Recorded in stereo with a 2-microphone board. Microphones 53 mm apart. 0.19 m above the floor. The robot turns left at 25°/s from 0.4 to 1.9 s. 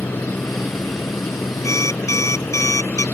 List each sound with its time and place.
0.0 s a helicopter: 140° left; by 3.1 s 100° left
1.6 s an alarm clock: 75° left (ahead or behind); by 3.0 s 70° left (ahead or behind)